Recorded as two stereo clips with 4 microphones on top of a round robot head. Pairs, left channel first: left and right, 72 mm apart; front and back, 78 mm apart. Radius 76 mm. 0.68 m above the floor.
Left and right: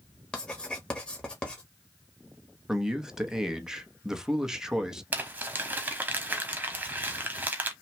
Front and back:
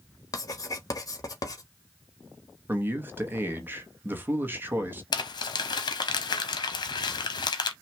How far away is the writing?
About 1.2 m.